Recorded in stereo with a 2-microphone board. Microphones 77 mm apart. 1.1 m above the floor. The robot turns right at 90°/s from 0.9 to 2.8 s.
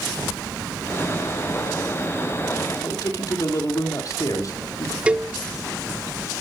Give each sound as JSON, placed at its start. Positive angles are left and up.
{"t": 2.8, "sound": "a man speaking", "side_deg": 50, "distance_m": 2.0}
{"t": 5.1, "sound": "a cowbell", "side_deg": -15, "distance_m": 0.6}